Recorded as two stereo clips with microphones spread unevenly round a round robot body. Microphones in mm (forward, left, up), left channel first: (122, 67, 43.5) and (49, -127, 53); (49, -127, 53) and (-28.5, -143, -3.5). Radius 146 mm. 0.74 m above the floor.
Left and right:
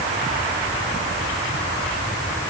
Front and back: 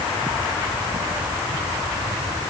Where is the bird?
I don't hear a bird.